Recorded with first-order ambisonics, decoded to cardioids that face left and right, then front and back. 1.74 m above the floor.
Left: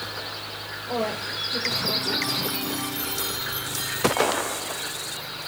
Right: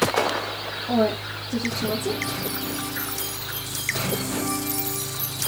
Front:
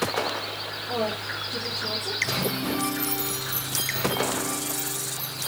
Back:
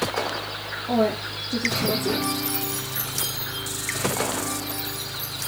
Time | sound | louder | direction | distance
0.9 | a woman speaking | right 4 dB, back 5 dB | 130° right | 4 m